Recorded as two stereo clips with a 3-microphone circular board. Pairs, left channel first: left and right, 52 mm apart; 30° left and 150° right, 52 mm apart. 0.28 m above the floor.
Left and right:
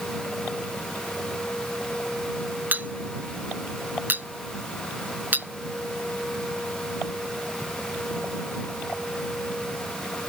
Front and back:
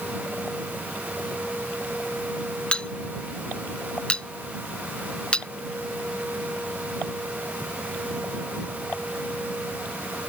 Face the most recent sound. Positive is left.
turn(degrees=-40)